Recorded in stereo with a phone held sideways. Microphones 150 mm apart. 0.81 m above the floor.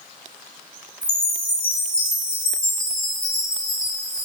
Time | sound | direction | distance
1.0 | a chime | 80° left | 5 m